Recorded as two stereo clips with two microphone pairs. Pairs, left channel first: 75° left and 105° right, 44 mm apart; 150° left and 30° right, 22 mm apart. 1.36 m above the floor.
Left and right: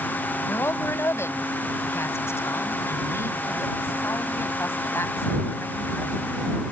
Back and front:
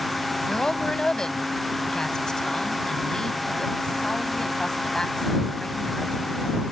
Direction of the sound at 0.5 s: 90° left.